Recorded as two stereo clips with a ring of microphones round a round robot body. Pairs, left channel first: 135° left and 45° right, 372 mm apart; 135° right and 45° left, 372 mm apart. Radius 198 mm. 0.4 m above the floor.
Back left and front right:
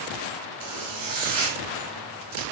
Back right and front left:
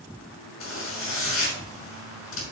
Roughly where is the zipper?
Right.